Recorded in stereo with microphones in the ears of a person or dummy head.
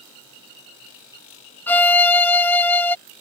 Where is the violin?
10° left (ahead or behind).